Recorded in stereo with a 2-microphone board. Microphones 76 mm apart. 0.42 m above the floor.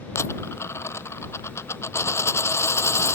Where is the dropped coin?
40° left (ahead or behind).